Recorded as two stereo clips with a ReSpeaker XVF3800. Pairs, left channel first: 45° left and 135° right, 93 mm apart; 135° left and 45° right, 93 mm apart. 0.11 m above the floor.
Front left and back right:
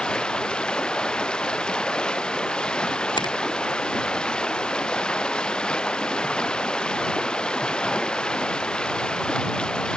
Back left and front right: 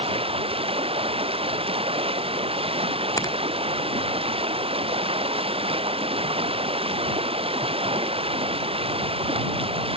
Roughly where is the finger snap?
Left.